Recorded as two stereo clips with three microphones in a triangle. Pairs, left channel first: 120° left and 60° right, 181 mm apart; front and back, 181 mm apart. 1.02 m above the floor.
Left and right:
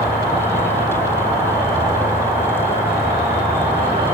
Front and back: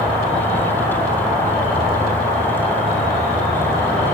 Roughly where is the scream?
No scream in this recording.